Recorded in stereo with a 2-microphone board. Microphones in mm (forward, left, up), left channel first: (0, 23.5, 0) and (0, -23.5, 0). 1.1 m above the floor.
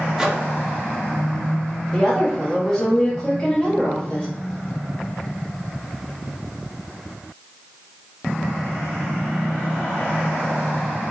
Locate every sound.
0.2 s a microwave: 10° right (ahead or behind), 0.5 m
1.9 s a woman speaking: 10° left (ahead or behind), 1.4 m